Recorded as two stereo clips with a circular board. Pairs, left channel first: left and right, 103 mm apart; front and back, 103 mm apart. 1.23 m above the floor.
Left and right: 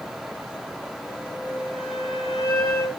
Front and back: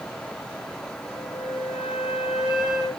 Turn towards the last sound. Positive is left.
turn(degrees=95)